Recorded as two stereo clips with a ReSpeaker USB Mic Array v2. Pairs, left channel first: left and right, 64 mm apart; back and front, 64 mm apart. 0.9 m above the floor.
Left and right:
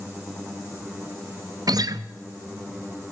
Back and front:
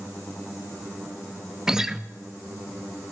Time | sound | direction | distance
1.7 | a guitar | 80° right | 0.5 m